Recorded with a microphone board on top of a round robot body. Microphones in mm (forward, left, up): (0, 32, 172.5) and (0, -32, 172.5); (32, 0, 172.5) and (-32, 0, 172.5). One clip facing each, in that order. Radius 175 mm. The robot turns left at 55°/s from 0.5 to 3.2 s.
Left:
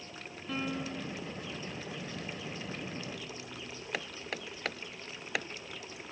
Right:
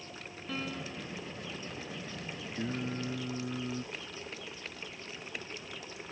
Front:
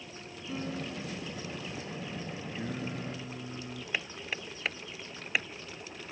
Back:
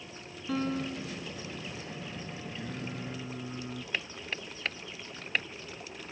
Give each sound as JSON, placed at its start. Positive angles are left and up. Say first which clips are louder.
{"t": 0.5, "sound": "a piano", "louder": "left 3 dB, back 5 dB", "azimuth_deg": 175}
{"t": 2.5, "sound": "singing", "louder": "right 5 dB, front 3 dB", "azimuth_deg": -65}
{"t": 3.9, "sound": "hammering", "louder": "left 4 dB, front 2 dB", "azimuth_deg": 85}